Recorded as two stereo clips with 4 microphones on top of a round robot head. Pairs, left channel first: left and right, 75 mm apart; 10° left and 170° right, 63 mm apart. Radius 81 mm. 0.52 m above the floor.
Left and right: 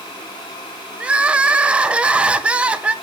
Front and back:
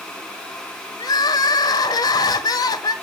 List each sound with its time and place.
1.0 s crying: 15° right, 0.9 m